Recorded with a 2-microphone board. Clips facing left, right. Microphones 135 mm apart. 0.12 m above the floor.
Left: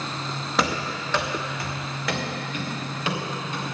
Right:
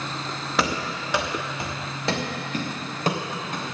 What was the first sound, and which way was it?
Running footsteps, centre (ahead or behind).